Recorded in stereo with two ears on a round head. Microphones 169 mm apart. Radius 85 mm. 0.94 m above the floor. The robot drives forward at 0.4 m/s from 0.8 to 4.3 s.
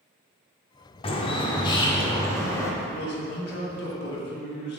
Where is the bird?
30° left (ahead or behind), 0.6 m; by 2.7 s 15° left (ahead or behind), 1.1 m.